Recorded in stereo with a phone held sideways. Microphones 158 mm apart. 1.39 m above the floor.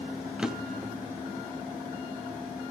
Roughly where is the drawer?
Centre.